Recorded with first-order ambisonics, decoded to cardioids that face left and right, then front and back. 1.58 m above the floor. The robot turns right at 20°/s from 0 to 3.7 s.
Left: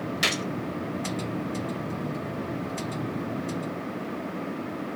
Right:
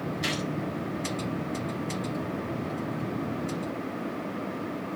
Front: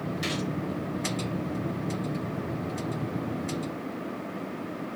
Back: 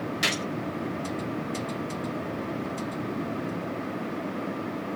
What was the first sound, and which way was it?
A gunshot, 120° left.